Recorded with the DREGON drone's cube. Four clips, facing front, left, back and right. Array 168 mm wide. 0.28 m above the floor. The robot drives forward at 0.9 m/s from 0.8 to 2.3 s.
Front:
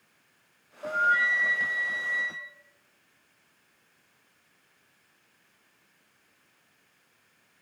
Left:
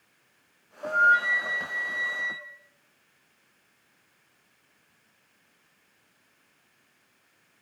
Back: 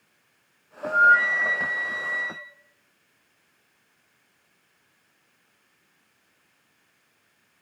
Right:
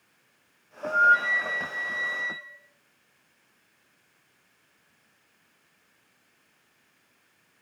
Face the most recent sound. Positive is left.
turn(degrees=180)